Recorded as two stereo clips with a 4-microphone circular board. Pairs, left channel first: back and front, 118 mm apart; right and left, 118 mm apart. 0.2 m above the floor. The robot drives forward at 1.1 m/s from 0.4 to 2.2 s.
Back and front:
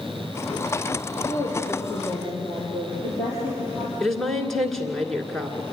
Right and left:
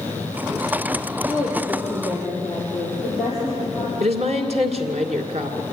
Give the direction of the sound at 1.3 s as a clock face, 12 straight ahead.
6 o'clock.